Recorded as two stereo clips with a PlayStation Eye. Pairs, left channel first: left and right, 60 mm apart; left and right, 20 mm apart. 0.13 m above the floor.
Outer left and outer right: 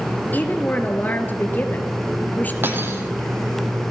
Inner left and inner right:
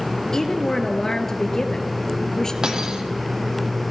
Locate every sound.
0.3 s a woman speaking: 30° left (ahead or behind), 2.5 m
2.6 s cutlery clinking: 40° right (ahead or behind), 3 m